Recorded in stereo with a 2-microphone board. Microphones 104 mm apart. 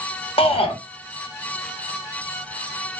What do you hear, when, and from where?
0.4 s a shout: 60° left (ahead or behind), 1.0 m